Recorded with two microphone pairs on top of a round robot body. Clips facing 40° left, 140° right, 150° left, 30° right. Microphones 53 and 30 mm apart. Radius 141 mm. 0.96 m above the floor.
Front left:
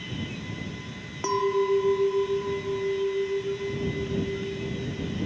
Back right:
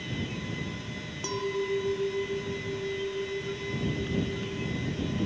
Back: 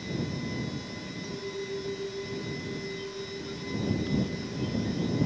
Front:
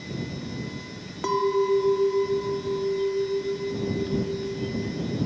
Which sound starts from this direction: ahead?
A clink, at 1.2 s.